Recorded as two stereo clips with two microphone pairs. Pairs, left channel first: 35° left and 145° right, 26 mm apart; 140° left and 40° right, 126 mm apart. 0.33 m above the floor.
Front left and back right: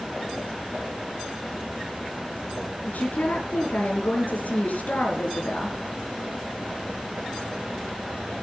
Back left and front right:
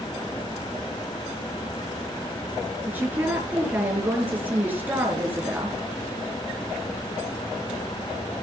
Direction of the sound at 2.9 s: 40° left.